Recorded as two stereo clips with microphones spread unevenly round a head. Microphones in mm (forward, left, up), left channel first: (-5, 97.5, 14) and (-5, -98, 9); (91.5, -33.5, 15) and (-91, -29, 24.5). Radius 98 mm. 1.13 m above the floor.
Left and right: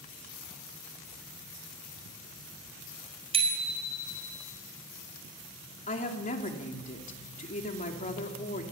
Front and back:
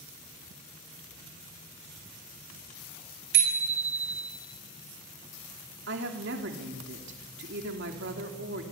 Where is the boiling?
No boiling in this recording.